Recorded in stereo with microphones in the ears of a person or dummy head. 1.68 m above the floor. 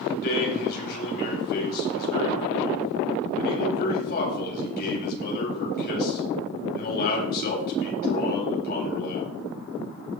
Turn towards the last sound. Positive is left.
turn(degrees=55)  # may be behind; listen again after turning